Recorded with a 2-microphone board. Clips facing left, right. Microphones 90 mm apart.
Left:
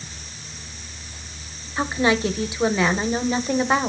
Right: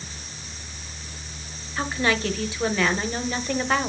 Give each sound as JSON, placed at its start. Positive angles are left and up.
{"t": 1.8, "sound": "a woman speaking", "side_deg": 20, "distance_m": 1.1}